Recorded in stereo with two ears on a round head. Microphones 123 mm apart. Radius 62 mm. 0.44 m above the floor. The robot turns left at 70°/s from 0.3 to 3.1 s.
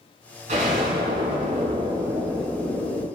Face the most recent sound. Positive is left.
turn(degrees=125)